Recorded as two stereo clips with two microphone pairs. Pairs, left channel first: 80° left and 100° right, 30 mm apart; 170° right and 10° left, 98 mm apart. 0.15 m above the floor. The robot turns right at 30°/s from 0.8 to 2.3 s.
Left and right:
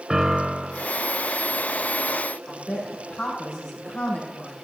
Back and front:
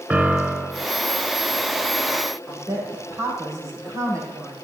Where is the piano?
55° right, 0.7 m.